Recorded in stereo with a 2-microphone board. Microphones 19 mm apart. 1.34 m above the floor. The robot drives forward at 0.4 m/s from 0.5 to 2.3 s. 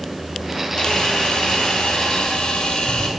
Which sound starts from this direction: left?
A camera shutter, at 0.8 s.